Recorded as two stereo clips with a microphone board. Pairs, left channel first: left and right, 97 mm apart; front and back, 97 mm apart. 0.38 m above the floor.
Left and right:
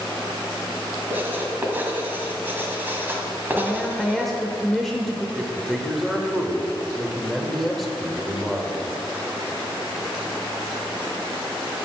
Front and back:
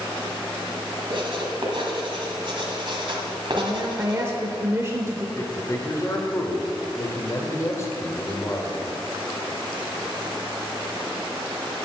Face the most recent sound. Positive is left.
turn(degrees=0)